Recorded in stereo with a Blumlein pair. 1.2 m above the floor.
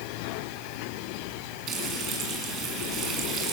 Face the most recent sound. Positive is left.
turn(degrees=-30)